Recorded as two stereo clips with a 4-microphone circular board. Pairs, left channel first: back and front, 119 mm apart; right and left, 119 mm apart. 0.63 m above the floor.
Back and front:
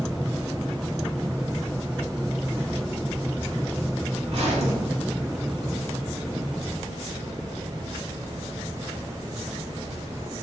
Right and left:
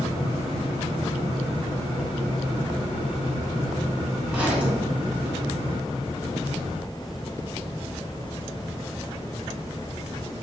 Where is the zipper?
10° left, 1.0 m.